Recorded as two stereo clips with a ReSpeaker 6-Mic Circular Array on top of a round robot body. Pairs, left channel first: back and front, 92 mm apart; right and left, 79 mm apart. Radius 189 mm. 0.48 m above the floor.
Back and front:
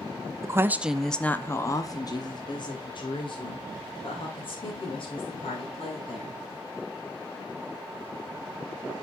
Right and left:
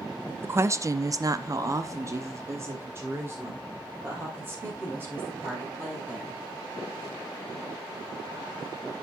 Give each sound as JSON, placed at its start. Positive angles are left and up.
{"t": 0.4, "sound": "a woman speaking", "azimuth_deg": 40, "distance_m": 0.9}